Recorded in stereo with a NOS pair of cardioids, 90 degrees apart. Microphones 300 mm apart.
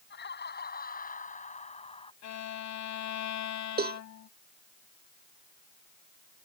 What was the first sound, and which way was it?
Laughter, 35° left.